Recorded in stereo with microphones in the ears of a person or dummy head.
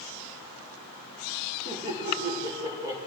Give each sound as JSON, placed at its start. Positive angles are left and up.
{"t": 1.6, "sound": "laughter", "side_deg": -25, "distance_m": 6.0}